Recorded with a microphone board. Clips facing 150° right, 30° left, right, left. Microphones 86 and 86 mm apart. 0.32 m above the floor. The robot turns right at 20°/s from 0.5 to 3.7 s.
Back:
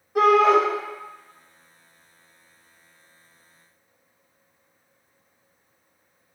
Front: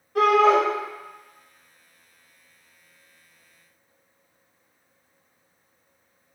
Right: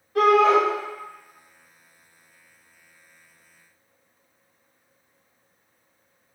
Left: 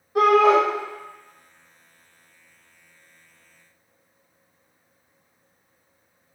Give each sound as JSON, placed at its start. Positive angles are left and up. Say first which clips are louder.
{"t": 0.1, "sound": "a shout", "louder": "back 1 dB, left 1 dB", "azimuth_deg": 140, "distance_m": 1.2}